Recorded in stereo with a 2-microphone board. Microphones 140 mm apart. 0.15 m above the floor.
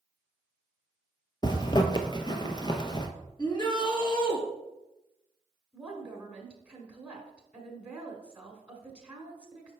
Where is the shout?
35° left (ahead or behind), 2 m.